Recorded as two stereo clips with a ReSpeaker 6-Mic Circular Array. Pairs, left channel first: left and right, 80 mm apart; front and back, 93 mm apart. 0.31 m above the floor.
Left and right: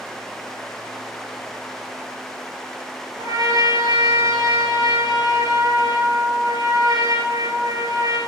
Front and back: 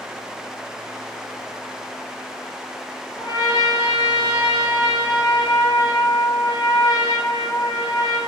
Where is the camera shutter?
No camera shutter in this recording.